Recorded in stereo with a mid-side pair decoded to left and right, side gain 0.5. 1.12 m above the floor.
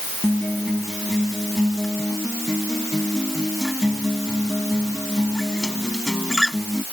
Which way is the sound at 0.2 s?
5° left.